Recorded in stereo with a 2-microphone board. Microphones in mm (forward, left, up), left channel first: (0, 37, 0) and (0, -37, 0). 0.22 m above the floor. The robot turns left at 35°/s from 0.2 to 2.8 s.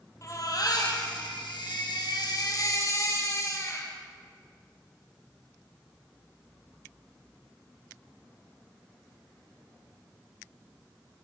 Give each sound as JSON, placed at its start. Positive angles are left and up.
{"t": 0.2, "sound": "a baby crying", "azimuth_deg": 135, "distance_m": 5.0}